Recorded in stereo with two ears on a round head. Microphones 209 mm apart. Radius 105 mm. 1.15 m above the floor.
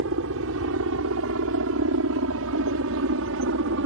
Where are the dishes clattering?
No dishes clattering in this recording.